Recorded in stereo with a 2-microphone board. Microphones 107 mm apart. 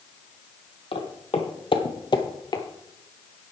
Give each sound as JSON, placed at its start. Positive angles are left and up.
{"t": 0.9, "sound": "footsteps", "side_deg": 60, "distance_m": 1.6}